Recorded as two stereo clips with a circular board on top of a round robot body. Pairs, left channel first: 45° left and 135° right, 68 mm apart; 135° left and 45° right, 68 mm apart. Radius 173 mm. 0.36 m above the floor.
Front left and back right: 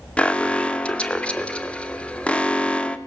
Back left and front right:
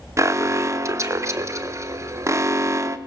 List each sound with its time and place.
0.2 s an alarm: 25° right, 1.5 m